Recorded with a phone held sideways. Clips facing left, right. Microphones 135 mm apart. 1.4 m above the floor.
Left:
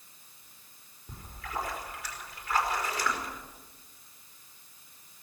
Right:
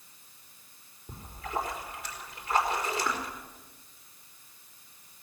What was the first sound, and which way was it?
A splash, 25° right (ahead or behind).